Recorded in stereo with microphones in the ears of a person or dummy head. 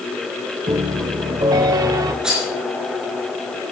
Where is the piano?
20° right (ahead or behind), 0.9 m.